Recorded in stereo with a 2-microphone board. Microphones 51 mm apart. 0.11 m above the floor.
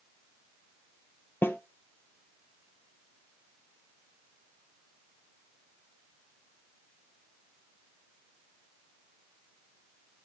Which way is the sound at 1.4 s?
45° left (ahead or behind).